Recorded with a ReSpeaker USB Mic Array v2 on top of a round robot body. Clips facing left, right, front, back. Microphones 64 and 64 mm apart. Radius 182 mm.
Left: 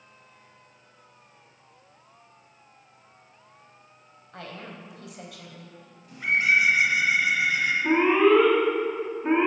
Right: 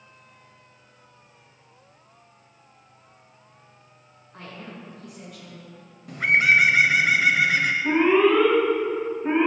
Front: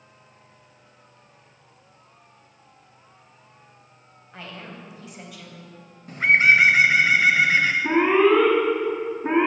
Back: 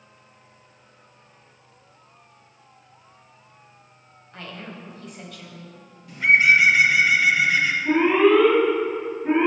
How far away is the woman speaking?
About 4 m.